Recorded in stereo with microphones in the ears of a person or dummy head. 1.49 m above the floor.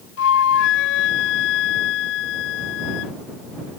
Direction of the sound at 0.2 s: 75° left (ahead or behind).